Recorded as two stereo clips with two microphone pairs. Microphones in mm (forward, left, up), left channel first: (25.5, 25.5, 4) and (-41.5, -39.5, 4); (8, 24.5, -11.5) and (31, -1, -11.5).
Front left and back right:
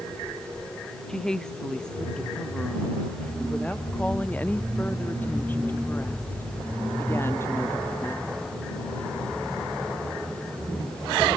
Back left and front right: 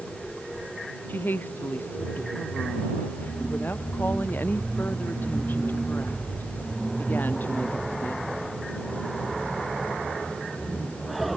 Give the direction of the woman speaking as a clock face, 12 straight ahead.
8 o'clock.